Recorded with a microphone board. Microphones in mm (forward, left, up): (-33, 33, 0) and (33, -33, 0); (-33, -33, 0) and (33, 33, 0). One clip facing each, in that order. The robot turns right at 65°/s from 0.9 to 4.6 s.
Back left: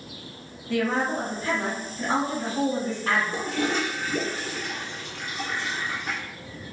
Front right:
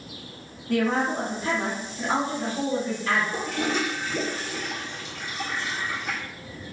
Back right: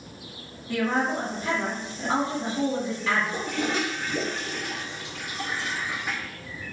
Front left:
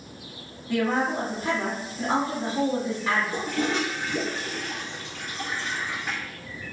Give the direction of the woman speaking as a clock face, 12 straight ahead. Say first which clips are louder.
Front right 1 dB, front left 1 dB; 1 o'clock.